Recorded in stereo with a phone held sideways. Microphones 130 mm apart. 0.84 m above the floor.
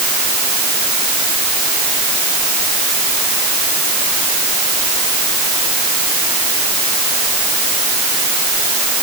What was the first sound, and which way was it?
Only background noise.